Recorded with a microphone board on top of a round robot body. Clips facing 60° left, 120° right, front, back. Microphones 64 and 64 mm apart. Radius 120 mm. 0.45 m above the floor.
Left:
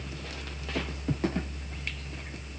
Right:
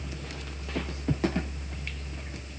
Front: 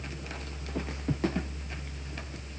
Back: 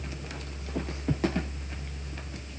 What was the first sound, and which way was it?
Only background noise.